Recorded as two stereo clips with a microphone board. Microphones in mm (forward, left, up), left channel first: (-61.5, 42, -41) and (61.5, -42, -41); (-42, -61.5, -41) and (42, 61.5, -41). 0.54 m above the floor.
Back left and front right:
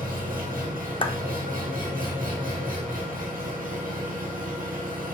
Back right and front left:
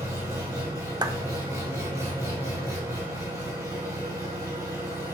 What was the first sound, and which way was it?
An engine running, 15° right.